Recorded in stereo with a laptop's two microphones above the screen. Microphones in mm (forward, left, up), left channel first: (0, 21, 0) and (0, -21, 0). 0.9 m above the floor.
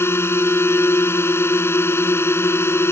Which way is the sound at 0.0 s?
75° left (ahead or behind).